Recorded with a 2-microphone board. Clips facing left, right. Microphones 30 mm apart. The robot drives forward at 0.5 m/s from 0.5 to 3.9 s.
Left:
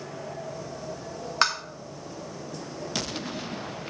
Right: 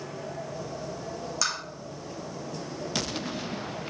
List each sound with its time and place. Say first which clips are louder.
1.4 s tapping: left 7 dB; 50° left (ahead or behind), 1.2 m